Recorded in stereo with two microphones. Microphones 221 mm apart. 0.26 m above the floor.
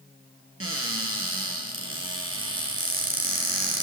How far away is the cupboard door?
About 2 m.